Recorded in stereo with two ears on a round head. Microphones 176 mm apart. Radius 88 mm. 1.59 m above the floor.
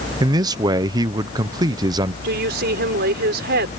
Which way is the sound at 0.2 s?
20° right (ahead or behind).